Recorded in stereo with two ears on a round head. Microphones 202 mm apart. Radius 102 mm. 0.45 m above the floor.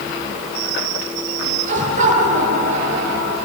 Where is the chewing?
I don't hear chewing.